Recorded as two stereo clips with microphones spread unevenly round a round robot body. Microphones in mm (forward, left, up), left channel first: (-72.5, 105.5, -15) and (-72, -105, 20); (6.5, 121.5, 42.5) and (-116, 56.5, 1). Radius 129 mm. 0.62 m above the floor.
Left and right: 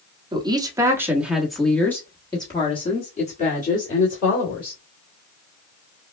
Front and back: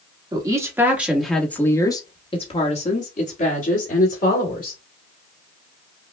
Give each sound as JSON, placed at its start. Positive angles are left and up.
{"t": 0.3, "sound": "a woman speaking", "azimuth_deg": -160, "distance_m": 1.4}